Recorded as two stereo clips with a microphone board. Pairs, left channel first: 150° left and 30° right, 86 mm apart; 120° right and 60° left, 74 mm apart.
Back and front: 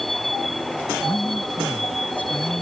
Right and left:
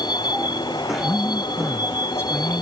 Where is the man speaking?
150° right.